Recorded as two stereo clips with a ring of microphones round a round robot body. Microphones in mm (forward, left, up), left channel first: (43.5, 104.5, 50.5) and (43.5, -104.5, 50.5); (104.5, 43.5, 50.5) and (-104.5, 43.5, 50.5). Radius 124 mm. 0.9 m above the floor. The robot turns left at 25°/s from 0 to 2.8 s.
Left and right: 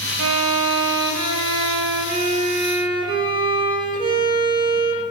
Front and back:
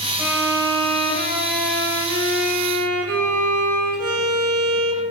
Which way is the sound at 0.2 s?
95° right.